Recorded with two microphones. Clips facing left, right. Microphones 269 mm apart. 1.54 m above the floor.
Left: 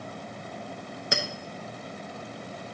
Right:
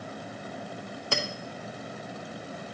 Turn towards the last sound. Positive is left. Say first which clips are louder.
# even
turn(degrees=15)  # may be behind; listen again after turning